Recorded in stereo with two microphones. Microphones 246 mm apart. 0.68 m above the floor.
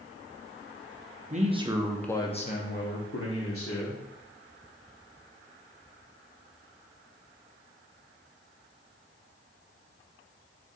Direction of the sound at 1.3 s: 30° right (ahead or behind).